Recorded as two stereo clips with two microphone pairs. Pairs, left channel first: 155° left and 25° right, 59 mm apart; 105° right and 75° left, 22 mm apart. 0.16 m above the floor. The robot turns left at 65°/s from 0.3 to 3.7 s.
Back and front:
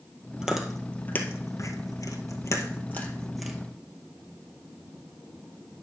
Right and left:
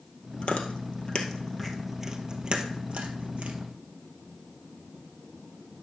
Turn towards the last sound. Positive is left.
turn(degrees=40)